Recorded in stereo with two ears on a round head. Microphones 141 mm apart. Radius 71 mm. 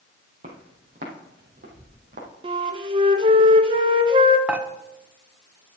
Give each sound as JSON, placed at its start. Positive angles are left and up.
{"t": 0.4, "sound": "footsteps", "side_deg": -55, "distance_m": 3.0}
{"t": 2.4, "sound": "a flute", "side_deg": -30, "distance_m": 0.8}
{"t": 4.5, "sound": "dishes clattering", "side_deg": -10, "distance_m": 0.7}